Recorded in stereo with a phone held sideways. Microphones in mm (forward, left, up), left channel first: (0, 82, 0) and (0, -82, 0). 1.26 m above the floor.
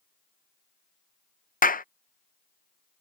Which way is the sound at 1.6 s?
55° left (ahead or behind).